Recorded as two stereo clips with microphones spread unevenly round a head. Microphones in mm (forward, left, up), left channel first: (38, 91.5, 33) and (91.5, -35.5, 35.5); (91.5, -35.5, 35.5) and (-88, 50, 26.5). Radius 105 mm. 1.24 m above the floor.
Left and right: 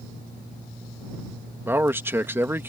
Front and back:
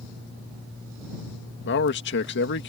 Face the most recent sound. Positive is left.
turn(degrees=10)